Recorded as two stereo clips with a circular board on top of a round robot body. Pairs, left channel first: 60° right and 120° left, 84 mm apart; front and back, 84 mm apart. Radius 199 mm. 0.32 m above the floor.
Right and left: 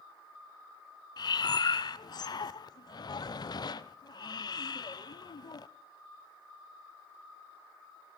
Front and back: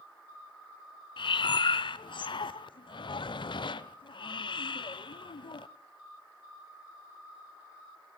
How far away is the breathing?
About 0.6 m.